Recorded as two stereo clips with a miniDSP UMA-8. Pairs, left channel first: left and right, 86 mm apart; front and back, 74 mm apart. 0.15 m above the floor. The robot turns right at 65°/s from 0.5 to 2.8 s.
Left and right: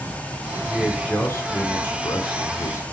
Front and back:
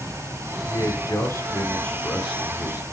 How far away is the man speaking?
About 1.7 m.